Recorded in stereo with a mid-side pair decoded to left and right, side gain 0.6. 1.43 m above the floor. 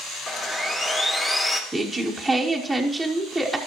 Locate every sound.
0.3 s sawing: 20° left, 2.0 m
1.7 s a woman speaking: straight ahead, 1.1 m